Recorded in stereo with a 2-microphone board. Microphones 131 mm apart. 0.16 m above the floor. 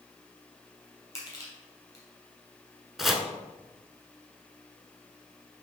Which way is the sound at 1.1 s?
30° left (ahead or behind).